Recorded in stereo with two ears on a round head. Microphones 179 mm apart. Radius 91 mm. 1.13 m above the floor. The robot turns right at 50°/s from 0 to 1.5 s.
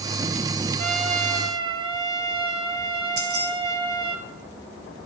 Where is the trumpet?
75° right, 1.2 m; by 4.2 s 40° right, 1.2 m.